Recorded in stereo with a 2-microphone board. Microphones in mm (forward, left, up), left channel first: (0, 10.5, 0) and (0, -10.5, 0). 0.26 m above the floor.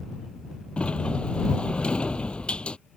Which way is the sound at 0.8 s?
55° left (ahead or behind).